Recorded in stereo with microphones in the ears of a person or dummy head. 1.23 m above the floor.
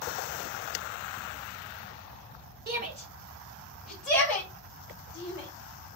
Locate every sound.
2.7 s a shout: 45° right (ahead or behind), 1.4 m; by 5.5 s 20° left (ahead or behind), 4 m